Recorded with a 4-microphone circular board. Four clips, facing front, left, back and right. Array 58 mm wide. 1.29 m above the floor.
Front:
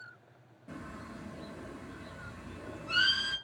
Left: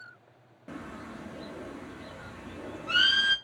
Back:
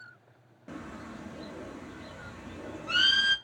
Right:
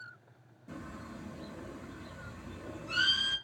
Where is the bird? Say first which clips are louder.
Left 4 dB, back 3 dB; 120° left, 0.7 m.